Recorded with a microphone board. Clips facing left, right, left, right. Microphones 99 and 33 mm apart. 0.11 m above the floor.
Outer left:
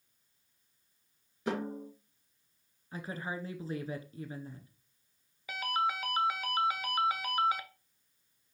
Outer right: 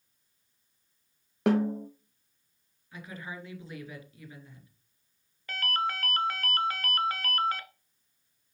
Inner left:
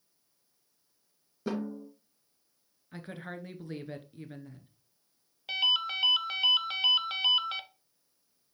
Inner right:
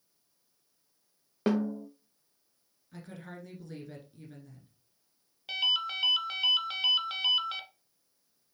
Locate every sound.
1.5 s a snare drum: 70° right (ahead or behind), 2.5 m
2.9 s a woman speaking: 35° left (ahead or behind), 1.3 m
5.5 s a ringtone: 10° left (ahead or behind), 0.6 m